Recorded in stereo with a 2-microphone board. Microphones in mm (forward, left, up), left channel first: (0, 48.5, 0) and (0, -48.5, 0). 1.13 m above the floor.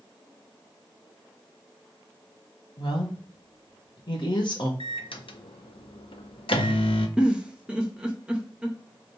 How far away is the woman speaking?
About 1.1 m.